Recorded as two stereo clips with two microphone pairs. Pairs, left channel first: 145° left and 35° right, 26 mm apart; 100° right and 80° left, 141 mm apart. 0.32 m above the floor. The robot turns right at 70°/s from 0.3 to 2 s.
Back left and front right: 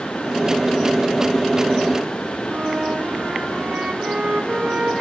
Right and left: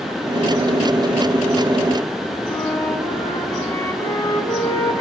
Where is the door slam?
No door slam in this recording.